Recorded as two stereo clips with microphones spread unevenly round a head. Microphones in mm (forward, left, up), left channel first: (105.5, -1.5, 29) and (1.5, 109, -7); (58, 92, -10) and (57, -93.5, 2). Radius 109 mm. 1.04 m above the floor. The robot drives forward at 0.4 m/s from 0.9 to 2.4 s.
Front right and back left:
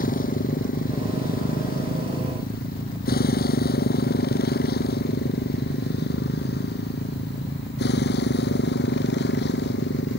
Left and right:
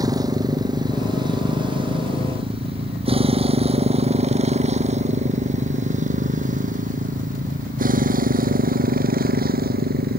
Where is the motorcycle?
20° right; by 10.2 s 55° right.